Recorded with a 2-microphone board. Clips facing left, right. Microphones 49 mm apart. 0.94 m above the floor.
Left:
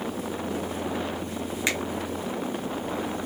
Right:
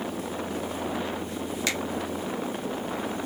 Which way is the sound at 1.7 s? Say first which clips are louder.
Left 3 dB; 25° left (ahead or behind).